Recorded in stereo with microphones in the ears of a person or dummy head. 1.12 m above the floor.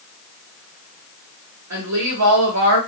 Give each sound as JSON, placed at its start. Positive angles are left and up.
{"t": 1.7, "sound": "a woman speaking", "side_deg": -75, "distance_m": 1.4}